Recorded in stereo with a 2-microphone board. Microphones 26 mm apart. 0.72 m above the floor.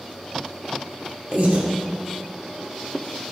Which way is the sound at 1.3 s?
65° right (ahead or behind).